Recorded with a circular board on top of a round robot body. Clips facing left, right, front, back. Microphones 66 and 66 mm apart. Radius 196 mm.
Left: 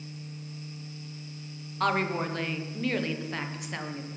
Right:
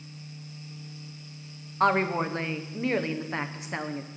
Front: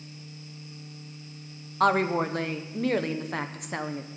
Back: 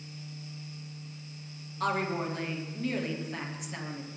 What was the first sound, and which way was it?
A woman speaking, 25° right.